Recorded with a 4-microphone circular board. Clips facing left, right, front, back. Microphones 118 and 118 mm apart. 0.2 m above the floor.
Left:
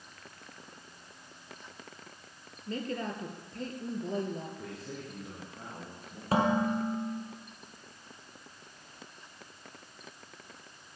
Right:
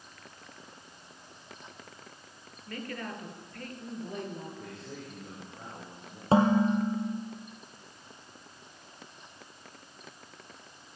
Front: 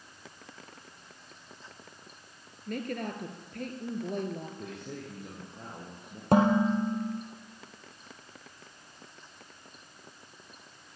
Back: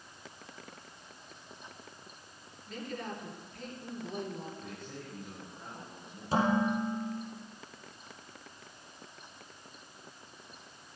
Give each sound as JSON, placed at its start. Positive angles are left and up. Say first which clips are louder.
{"t": 2.7, "sound": "a woman speaking", "louder": "left 4 dB, front 5 dB", "azimuth_deg": 25, "distance_m": 4.0}
{"t": 4.6, "sound": "a man speaking", "louder": "left 1 dB, front 4 dB", "azimuth_deg": 0, "distance_m": 7.5}
{"t": 6.3, "sound": "dishes clattering", "louder": "right 4 dB, front 5 dB", "azimuth_deg": -30, "distance_m": 3.5}